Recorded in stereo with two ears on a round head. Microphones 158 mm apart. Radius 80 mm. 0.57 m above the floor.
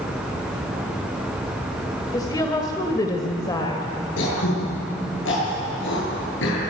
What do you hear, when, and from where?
2.1 s a woman speaking: 25° left (ahead or behind), 2.0 m
4.2 s throat clearing: 85° left, 10 m